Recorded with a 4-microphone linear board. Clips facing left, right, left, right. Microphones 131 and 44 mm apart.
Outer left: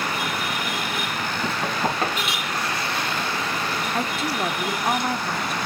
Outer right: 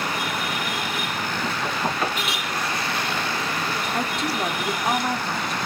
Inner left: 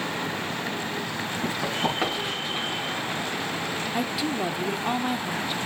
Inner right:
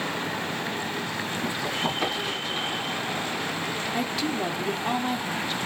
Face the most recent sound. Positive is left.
turn(degrees=5)  # may be behind; listen again after turning